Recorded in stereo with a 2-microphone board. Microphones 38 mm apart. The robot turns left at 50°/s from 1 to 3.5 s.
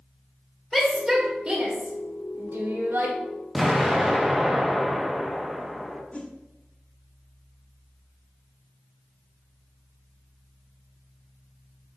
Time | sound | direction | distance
0.7 | a shout | centre (ahead or behind) | 1.9 m
3.5 | an explosion | 5° right (ahead or behind) | 0.8 m
6.1 | a whoosh | 30° left (ahead or behind) | 1.0 m